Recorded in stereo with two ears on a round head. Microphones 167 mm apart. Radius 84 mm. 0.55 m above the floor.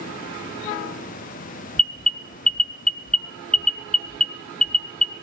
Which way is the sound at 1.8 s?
5° left (ahead or behind).